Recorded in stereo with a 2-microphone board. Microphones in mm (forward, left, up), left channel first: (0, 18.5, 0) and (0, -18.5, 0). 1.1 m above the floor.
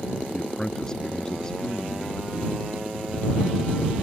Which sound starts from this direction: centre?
A man speaking, at 0.3 s.